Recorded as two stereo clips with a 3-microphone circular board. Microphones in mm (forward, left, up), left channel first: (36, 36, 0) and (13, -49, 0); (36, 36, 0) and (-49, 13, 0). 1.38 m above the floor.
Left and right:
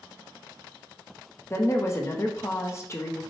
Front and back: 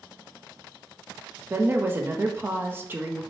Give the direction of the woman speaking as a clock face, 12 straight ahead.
8 o'clock.